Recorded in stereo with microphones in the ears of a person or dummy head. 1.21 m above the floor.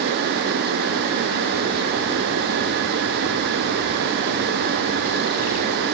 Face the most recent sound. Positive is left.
No sound to turn to.